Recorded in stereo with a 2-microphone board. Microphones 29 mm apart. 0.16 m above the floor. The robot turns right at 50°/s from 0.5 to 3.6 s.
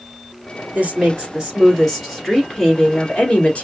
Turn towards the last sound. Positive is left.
turn(degrees=75)